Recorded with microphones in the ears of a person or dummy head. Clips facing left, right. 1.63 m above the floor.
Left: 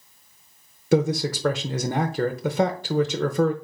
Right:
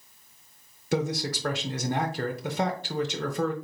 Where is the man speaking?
75° left (ahead or behind), 0.6 m.